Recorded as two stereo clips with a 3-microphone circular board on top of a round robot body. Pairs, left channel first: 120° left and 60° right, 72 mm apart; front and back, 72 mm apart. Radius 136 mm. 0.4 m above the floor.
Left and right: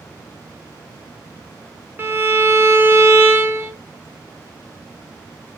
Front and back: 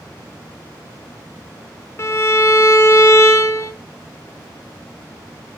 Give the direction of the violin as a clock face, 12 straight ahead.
1 o'clock.